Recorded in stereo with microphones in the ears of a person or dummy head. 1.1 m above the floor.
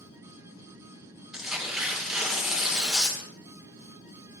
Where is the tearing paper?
5° right (ahead or behind), 2 m.